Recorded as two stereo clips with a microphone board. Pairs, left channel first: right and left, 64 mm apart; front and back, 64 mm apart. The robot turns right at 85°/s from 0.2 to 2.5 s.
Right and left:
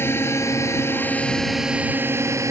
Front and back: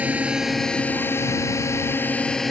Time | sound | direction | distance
0.0 | a drone | 120° right | ?